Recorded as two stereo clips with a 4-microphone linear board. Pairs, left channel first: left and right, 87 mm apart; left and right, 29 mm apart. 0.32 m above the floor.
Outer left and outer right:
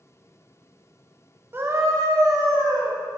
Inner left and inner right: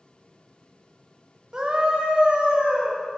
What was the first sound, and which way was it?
A scream, 25° right (ahead or behind).